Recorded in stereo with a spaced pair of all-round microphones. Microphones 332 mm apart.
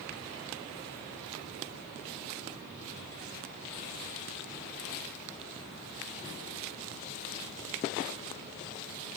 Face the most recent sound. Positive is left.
No sound to turn to.